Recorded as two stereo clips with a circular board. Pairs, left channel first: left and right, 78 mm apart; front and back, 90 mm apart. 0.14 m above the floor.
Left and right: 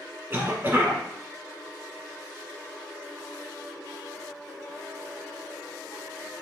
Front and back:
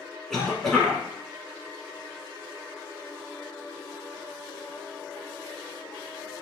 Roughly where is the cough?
Right.